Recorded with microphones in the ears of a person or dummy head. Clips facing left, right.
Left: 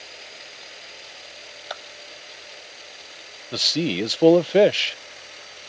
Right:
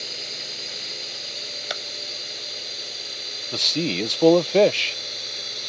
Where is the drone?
50° right (ahead or behind).